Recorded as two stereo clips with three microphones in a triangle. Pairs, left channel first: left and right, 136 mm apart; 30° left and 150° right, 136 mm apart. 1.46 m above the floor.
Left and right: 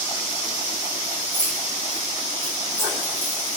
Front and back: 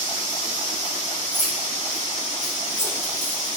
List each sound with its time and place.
1.3 s keys jangling: 130° right, 4 m